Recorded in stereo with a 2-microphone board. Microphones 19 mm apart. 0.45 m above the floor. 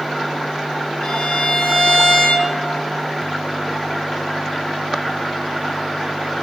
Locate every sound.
1.0 s a violin: 55° left (ahead or behind), 1.0 m